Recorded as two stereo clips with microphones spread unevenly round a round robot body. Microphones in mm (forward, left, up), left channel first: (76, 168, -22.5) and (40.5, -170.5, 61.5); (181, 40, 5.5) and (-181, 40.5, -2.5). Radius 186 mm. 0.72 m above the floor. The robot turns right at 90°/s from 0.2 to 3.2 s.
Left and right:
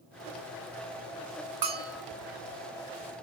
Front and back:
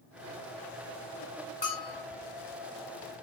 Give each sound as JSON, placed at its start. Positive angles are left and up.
{"t": 1.6, "sound": "a bell", "azimuth_deg": -70, "distance_m": 1.5}